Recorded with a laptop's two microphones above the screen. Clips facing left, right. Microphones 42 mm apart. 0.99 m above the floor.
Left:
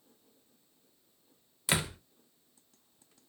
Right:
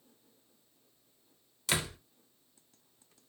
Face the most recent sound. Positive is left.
turn(degrees=15)  # may be behind; listen again after turning